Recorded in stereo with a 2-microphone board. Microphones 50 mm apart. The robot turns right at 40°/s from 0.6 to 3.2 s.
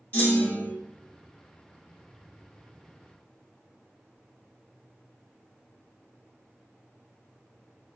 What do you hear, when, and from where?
0.1 s a clunk: 40° left (ahead or behind), 1.3 m; by 0.7 s 35° left (ahead or behind), 1.3 m